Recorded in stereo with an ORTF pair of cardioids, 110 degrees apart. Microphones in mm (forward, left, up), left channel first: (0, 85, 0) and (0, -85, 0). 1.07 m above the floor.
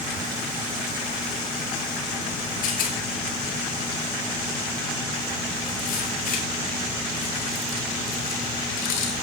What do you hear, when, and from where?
2.6 s a rattle: 55° left, 6 m